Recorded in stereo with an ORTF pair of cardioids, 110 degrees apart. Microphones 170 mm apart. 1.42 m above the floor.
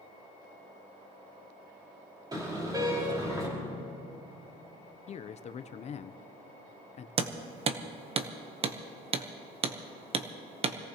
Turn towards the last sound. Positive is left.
turn(degrees=-35)